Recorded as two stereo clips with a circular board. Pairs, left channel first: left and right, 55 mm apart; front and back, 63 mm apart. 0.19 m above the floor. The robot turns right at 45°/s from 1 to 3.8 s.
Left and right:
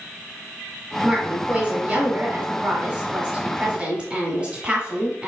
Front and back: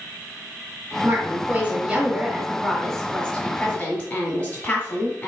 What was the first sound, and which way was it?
A woman speaking, 165° right.